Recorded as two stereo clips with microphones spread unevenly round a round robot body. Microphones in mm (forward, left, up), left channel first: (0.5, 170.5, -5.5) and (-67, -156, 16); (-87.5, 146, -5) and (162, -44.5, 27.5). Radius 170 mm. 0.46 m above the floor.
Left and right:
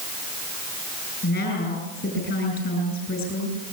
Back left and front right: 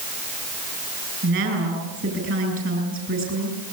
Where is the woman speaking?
15° left, 8.5 m.